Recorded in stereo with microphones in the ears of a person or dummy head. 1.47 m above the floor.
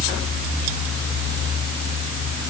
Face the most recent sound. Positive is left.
No sound to turn to.